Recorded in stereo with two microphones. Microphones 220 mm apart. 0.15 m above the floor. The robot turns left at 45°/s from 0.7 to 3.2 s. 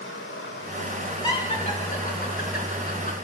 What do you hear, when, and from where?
0.0 s running water: 65° left, 7 m; by 3.2 s 50° right, 7 m
1.2 s laughter: 20° left (ahead or behind), 2 m; by 3.1 s 40° left (ahead or behind), 2 m